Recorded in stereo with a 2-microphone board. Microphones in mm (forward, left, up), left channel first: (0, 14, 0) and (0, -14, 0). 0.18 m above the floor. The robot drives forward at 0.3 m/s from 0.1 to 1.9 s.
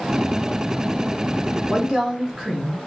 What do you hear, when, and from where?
1.7 s a woman speaking: 15° right (ahead or behind), 1.1 m